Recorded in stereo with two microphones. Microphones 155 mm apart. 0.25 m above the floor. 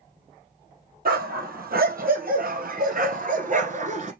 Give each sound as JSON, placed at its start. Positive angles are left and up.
{"t": 1.1, "sound": "a dog barking", "side_deg": -80, "distance_m": 2.5}